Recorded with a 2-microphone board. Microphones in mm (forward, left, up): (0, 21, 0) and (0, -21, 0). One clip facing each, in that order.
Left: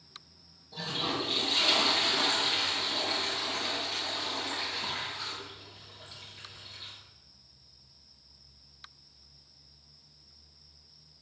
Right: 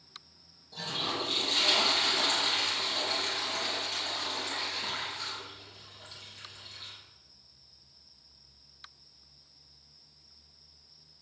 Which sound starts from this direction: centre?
A toilet flushing, at 0.7 s.